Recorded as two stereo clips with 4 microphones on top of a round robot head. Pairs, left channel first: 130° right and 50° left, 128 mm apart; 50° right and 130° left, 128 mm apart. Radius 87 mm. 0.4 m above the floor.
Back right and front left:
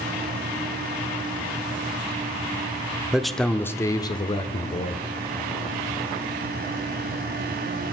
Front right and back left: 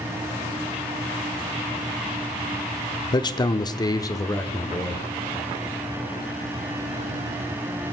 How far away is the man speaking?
About 0.9 m.